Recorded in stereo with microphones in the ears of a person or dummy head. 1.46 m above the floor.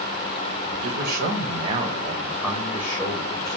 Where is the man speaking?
60° right (ahead or behind), 1.4 m; by 3.6 s 25° left (ahead or behind), 2.0 m.